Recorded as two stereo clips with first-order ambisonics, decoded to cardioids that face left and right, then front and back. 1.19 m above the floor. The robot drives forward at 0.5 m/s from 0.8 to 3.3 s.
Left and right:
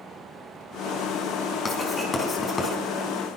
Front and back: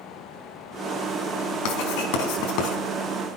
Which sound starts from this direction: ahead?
Writing, at 1.6 s.